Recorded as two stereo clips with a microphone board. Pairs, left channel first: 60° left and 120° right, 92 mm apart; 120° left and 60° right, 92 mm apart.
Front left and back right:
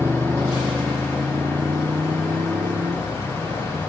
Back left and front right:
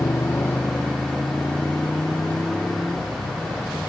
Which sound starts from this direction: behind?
A motorcycle, at 0.0 s.